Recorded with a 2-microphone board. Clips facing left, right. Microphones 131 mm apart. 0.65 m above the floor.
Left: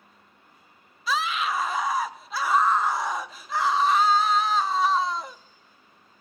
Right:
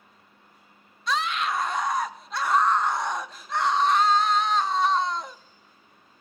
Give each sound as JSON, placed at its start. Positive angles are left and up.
{"t": 1.1, "sound": "a scream", "side_deg": 5, "distance_m": 0.6}